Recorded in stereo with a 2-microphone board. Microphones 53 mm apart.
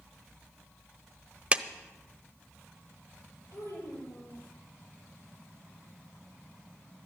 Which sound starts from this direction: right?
A clap, at 1.5 s.